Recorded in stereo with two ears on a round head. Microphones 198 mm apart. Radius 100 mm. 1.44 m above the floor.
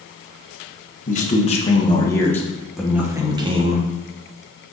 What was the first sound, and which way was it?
A man speaking, 35° left (ahead or behind).